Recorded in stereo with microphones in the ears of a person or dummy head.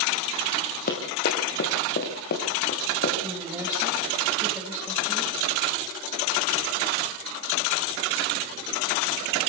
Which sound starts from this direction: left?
Running footsteps, at 0.9 s.